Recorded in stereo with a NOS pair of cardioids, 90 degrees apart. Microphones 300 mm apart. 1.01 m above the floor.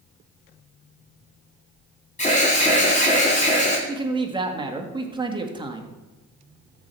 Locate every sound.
2.2 s an alarm: 25° left, 3.5 m
3.9 s a man speaking: 15° right, 1.8 m